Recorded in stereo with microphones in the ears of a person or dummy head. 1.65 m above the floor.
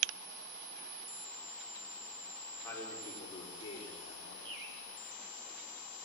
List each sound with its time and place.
2.6 s a man speaking: 15° left (ahead or behind), 5 m; by 4.3 s 45° left (ahead or behind), 4.5 m
4.5 s a bird: 75° right (ahead or behind), 3 m